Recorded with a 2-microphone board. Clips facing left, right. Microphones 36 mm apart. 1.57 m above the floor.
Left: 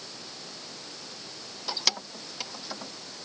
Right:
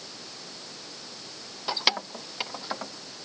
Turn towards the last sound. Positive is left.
turn(degrees=-35)  # may be behind; listen again after turning